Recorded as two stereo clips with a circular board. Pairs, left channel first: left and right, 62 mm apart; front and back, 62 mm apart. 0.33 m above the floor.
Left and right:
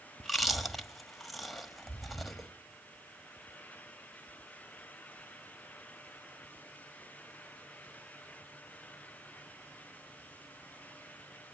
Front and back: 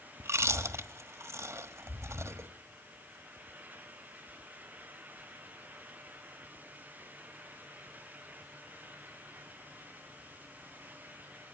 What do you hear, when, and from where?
0.2 s chewing: straight behind, 1.2 m